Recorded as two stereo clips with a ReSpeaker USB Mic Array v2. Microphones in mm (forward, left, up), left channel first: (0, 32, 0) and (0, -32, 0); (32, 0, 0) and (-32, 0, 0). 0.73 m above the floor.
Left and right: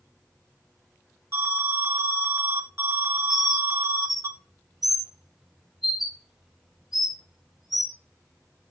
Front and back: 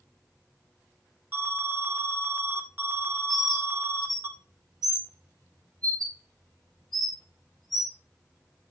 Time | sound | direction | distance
1.3 | an alarm | 130° right | 1.2 m
3.3 | a bird | 175° right | 1.9 m